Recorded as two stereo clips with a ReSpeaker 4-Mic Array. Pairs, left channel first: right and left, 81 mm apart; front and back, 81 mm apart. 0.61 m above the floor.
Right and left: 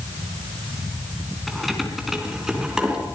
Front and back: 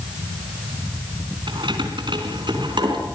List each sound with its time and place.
1.5 s keys jangling: straight behind, 3.5 m; by 3.0 s 170° left, 4.5 m